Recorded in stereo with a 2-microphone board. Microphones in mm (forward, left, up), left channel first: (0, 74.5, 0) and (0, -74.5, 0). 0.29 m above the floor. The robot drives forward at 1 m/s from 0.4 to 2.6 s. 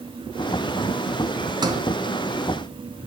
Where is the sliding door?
30° right (ahead or behind), 1.3 m; by 1.8 s 25° right (ahead or behind), 1.4 m.